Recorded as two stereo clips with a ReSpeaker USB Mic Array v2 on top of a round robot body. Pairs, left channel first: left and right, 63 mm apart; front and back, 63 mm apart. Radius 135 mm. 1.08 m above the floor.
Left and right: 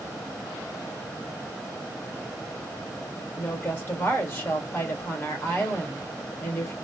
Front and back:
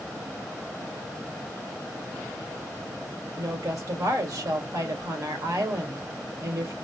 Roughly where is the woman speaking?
Behind left.